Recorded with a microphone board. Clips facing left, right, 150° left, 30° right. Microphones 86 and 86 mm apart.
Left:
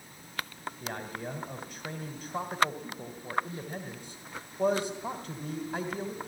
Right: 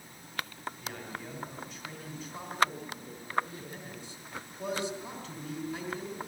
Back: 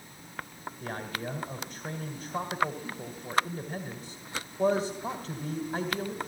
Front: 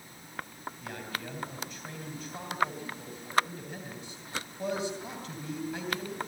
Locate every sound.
0.8 s a man speaking: 105° left, 2.5 m